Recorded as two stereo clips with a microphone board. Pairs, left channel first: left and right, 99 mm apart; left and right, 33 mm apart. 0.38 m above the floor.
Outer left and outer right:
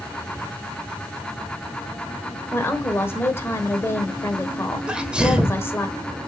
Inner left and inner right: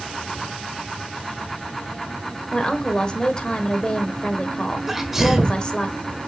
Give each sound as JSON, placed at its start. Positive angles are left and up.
{"t": 2.5, "sound": "a woman speaking", "side_deg": 25, "distance_m": 1.3}
{"t": 4.9, "sound": "a sneeze", "side_deg": -10, "distance_m": 1.2}